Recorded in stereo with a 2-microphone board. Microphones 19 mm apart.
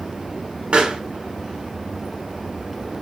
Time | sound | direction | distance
0.7 | a pop | 55° right (ahead or behind) | 0.8 m